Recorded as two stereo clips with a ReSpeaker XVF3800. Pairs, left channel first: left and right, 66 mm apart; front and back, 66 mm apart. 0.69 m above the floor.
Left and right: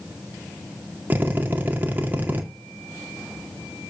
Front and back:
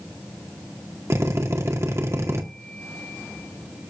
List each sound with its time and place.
1.1 s a drill: 145° right, 1.9 m